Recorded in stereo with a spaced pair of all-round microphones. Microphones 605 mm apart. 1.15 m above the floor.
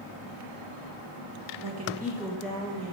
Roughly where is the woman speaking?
Right.